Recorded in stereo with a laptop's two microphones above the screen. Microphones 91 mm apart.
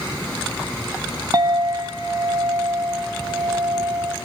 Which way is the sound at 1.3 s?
40° right (ahead or behind).